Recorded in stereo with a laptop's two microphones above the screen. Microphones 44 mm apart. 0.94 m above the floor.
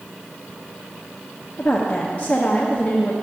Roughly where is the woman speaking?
Left.